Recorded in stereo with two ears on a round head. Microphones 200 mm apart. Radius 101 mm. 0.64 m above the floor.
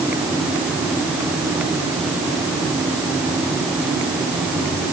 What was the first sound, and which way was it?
Only background noise.